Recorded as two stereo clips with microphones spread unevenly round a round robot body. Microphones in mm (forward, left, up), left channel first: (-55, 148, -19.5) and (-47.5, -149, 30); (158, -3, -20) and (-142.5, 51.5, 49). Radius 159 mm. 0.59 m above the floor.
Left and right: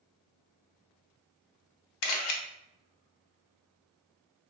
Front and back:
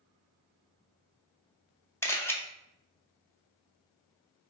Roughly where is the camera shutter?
Ahead left.